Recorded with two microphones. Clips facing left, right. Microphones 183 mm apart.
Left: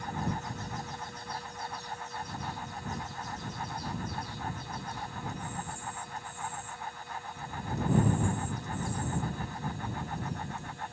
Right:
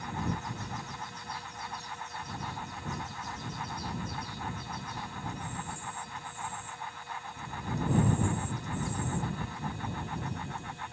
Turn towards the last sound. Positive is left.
No sound to turn to.